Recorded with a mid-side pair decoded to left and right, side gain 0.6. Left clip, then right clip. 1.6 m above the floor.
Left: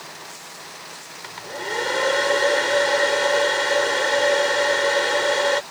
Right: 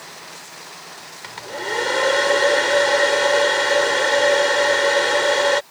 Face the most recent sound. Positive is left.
turn(degrees=-10)